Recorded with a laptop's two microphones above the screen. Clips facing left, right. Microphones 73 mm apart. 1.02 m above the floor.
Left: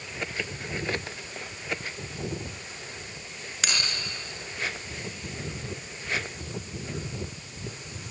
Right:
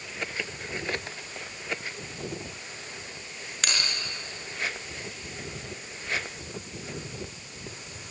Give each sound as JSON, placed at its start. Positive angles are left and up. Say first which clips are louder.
{"t": 3.6, "sound": "a bell", "louder": "even", "side_deg": 0, "distance_m": 6.0}